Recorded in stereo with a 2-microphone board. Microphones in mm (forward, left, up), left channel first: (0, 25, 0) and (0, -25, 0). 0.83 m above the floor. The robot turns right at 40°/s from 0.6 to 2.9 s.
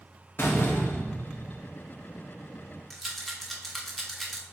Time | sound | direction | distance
0.4 | a door slam | 120° left | 0.9 m
2.9 | a rattle | centre (ahead or behind) | 0.8 m